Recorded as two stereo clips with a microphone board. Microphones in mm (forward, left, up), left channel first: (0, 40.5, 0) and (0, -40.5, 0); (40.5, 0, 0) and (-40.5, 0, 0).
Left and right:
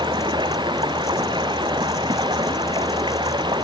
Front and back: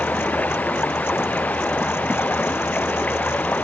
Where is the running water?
70° right.